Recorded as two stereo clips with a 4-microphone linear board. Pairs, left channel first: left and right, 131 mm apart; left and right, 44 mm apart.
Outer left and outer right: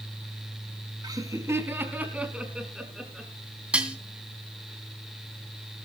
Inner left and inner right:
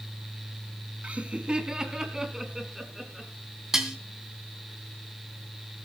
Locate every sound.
1.0 s laughter: 30° right (ahead or behind), 2.0 m; by 3.3 s centre (ahead or behind), 4.5 m
3.7 s dishes clattering: 10° right (ahead or behind), 2.0 m